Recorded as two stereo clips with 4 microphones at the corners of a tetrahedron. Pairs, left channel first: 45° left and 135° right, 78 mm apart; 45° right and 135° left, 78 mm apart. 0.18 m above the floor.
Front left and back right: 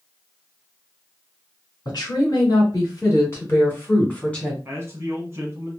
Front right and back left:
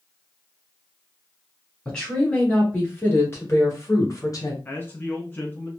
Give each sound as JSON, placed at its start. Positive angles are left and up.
{"t": 1.9, "sound": "a woman speaking", "azimuth_deg": 30, "distance_m": 2.0}
{"t": 4.7, "sound": "a man speaking", "azimuth_deg": -90, "distance_m": 1.1}